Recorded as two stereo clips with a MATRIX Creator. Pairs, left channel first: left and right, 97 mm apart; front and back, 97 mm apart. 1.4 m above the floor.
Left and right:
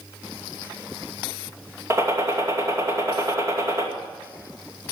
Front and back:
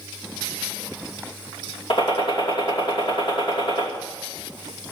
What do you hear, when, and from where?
1.9 s a gunshot: 30° right, 2.5 m